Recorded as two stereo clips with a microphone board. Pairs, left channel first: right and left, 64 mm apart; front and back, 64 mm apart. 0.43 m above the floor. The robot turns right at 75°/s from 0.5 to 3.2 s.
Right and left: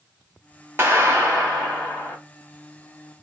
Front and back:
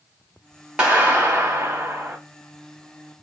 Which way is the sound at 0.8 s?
115° left.